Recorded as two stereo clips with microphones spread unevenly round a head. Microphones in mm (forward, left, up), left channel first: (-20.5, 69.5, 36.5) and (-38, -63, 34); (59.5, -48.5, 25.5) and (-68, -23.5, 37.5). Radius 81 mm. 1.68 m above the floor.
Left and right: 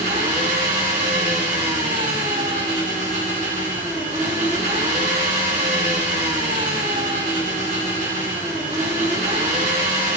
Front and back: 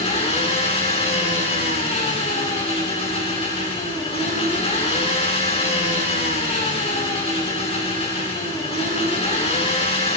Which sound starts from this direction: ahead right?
An engine running, at 0.0 s.